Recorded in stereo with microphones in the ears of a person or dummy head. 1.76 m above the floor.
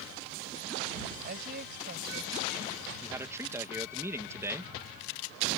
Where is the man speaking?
15° right (ahead or behind).